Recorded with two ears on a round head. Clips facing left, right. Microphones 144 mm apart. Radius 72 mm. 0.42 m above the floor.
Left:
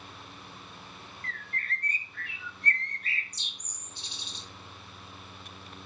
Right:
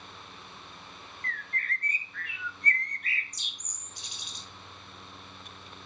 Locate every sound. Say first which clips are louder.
1.2 s a bird: right 2 dB; 25° left (ahead or behind), 0.7 m